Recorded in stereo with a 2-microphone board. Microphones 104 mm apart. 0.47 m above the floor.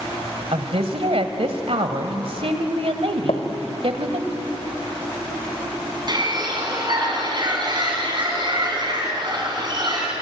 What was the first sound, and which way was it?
A woman speaking, 65° right (ahead or behind).